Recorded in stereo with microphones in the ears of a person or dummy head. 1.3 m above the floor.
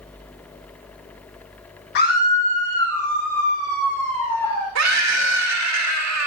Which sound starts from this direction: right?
A scream, at 4.8 s.